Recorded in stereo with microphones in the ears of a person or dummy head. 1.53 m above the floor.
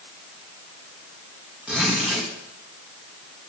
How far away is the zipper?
About 1.9 m.